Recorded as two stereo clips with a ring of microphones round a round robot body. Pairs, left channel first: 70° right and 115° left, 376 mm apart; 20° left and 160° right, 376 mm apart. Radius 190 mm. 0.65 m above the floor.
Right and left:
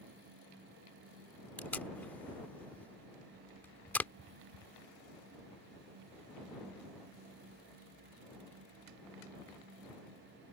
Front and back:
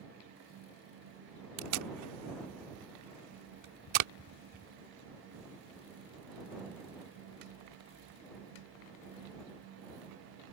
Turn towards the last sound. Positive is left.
turn(degrees=-155)